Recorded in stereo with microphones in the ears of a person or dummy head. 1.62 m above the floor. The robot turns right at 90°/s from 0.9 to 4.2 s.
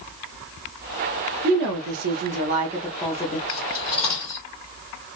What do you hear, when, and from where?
1.4 s a woman speaking: 140° right, 0.7 m; by 3.4 s 35° left, 0.7 m
3.5 s cutlery clinking: 60° left (ahead or behind), 1.9 m; by 4.5 s 5° left (ahead or behind), 1.9 m